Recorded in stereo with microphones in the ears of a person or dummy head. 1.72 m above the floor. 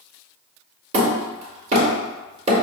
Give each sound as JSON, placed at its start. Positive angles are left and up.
{"t": 0.9, "sound": "hammering", "side_deg": -30, "distance_m": 1.4}